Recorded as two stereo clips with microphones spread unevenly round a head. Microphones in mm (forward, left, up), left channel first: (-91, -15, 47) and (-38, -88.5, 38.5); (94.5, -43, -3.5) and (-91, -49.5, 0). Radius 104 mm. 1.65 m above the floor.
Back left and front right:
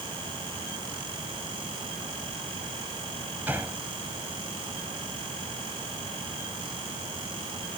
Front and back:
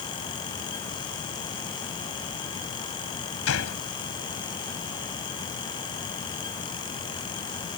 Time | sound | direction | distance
3.5 | a gunshot | 30° left | ?